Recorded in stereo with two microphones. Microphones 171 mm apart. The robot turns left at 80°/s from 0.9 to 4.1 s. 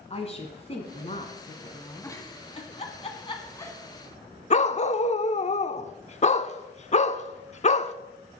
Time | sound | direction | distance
0.1 | a woman speaking | 115° left | 1.3 m
2.0 | a giggle | 15° left (ahead or behind) | 1.4 m
4.5 | a dog barking | 40° left (ahead or behind) | 0.5 m